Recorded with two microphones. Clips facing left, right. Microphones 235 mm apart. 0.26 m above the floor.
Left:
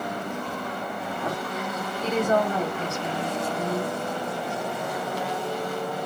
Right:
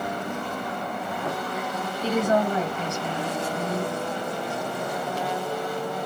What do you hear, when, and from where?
2.0 s a woman speaking: 30° right (ahead or behind), 1.6 m